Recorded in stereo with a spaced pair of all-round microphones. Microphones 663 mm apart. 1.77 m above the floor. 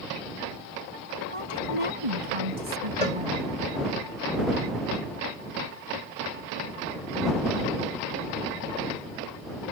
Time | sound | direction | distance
1.3 | a woman speaking | 50° right (ahead or behind) | ?
3.0 | a cowbell | 70° left (ahead or behind) | ?